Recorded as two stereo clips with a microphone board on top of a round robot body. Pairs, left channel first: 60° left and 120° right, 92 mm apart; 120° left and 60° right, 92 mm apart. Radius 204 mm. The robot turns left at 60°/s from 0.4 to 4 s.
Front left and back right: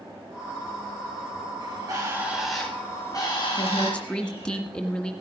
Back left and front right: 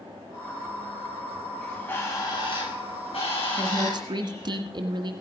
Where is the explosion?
No explosion in this recording.